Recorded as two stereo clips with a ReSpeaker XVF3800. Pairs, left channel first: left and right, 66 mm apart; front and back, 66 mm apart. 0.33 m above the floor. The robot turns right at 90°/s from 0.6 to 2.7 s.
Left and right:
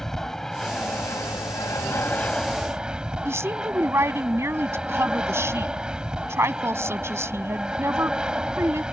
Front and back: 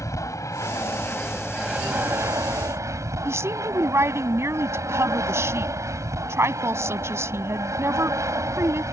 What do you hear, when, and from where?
0.0 s an aircraft: 5° left; by 8.9 s 165° right
3.2 s a woman speaking: 135° right